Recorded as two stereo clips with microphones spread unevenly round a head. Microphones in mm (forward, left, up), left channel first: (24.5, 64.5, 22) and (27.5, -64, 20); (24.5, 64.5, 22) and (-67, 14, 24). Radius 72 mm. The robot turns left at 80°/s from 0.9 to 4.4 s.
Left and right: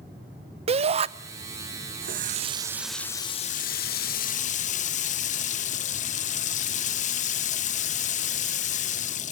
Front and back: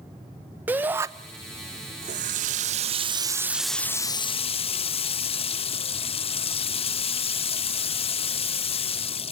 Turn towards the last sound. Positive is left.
turn(degrees=60)